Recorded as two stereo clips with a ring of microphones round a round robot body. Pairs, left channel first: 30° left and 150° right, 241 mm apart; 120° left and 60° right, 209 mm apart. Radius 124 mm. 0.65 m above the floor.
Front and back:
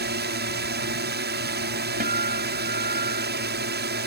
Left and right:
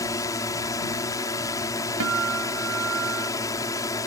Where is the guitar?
95° right.